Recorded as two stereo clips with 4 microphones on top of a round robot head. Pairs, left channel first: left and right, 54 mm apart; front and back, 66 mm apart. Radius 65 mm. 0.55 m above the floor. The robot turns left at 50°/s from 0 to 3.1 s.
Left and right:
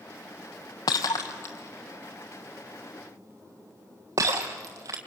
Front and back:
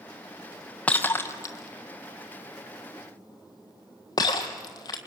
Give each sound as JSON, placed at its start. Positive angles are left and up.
{"t": 0.9, "sound": "breaking glass", "azimuth_deg": 70, "distance_m": 1.5}